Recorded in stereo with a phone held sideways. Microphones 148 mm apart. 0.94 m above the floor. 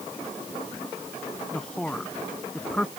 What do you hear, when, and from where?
1.5 s a man speaking: 5° left (ahead or behind)